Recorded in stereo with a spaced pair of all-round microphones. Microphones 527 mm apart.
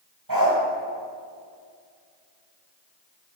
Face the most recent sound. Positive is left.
turn(degrees=-40)  # may be behind; listen again after turning